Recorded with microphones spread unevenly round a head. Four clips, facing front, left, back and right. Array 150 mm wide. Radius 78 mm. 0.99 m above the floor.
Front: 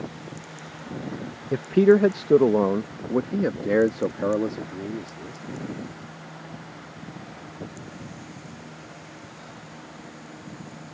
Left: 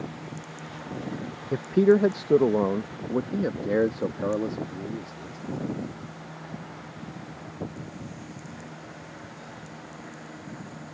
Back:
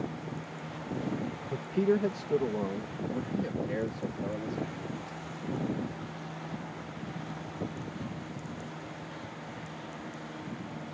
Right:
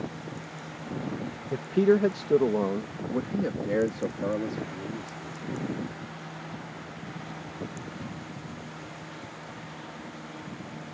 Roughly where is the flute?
I don't hear a flute.